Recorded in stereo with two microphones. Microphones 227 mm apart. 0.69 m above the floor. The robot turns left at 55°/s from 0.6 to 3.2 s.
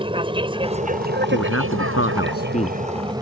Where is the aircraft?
20° right (ahead or behind); by 3.2 s 15° right (ahead or behind).